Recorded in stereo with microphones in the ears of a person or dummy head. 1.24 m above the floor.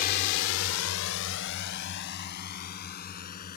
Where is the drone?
50° left (ahead or behind); by 3.6 s 45° left (ahead or behind).